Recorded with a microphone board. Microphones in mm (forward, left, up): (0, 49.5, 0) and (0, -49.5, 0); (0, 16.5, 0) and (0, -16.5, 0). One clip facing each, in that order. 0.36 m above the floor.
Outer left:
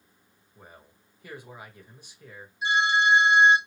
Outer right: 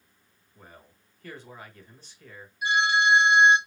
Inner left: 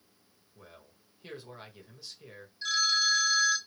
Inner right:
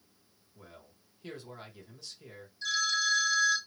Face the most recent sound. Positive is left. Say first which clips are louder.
# even, inner left 2 dB
turn(degrees=30)  # may be behind; listen again after turning